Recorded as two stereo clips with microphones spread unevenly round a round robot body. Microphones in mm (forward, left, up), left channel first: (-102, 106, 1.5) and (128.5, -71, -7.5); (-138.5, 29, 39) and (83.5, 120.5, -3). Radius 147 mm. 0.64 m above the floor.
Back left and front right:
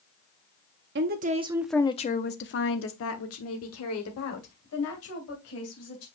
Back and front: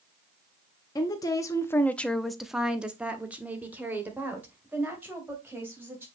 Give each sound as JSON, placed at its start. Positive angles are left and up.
{"t": 0.9, "sound": "a woman speaking", "azimuth_deg": -75, "distance_m": 0.8}